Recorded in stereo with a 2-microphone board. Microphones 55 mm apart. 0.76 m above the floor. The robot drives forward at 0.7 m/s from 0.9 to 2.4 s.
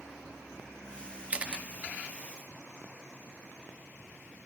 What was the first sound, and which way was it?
A camera shutter, 25° right (ahead or behind).